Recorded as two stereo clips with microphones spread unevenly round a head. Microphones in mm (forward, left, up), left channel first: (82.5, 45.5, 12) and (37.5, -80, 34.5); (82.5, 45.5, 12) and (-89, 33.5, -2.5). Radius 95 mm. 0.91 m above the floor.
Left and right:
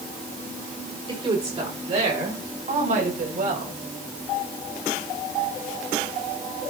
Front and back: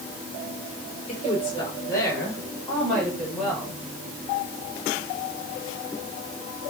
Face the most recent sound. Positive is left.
turn(degrees=-90)